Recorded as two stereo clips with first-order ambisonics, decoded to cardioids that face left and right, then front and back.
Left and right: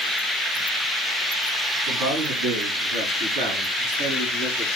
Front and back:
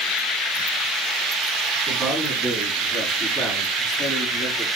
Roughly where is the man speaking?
Right.